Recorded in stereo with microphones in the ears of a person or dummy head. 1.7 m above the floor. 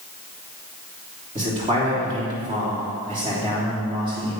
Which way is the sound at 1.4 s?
30° right (ahead or behind).